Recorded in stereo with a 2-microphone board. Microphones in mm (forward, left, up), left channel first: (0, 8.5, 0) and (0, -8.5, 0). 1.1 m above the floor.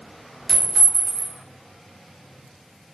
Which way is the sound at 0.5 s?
40° left (ahead or behind).